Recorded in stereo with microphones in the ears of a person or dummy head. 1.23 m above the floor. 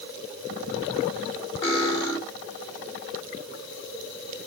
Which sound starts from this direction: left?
Cutlery clinking, at 1.6 s.